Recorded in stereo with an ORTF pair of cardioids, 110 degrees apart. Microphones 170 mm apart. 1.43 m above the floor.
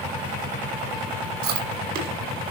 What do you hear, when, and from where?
1.4 s chewing: 70° right, 5.5 m